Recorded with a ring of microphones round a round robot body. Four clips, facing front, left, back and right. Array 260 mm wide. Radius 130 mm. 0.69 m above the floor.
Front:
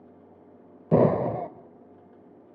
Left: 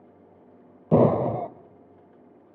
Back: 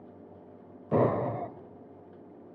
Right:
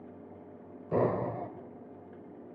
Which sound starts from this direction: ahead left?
An explosion, at 0.9 s.